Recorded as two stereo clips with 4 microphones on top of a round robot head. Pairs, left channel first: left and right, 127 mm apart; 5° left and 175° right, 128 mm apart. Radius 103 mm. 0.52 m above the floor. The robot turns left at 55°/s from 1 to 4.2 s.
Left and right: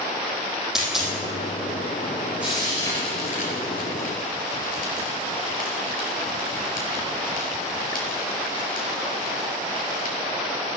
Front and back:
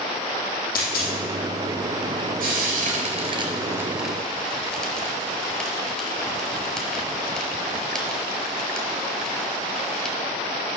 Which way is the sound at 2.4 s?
175° right.